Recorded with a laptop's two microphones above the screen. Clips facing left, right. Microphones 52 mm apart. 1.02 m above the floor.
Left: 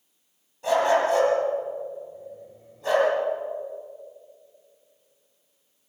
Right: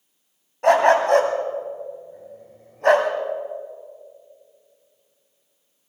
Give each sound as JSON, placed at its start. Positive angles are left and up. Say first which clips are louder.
{"t": 0.6, "sound": "a dog barking", "louder": "right 5 dB", "side_deg": -60, "distance_m": 2.5}